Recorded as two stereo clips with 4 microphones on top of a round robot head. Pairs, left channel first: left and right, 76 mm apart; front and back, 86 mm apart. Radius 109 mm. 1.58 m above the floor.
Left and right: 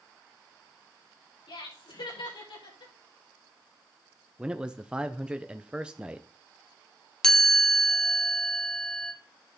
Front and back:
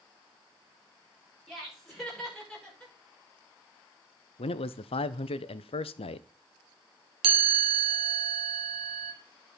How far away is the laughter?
About 5.5 m.